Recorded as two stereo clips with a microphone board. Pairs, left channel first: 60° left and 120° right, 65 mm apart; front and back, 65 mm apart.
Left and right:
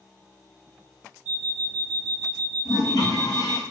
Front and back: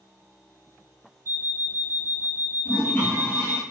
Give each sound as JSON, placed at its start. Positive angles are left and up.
{"t": 1.2, "sound": "an alarm clock", "azimuth_deg": 75, "distance_m": 1.6}
{"t": 2.6, "sound": "a toilet flushing", "azimuth_deg": 55, "distance_m": 1.2}